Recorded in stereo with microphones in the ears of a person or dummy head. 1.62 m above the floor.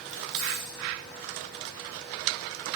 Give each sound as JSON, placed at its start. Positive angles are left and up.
{"t": 0.1, "sound": "keys jangling", "side_deg": -25, "distance_m": 0.6}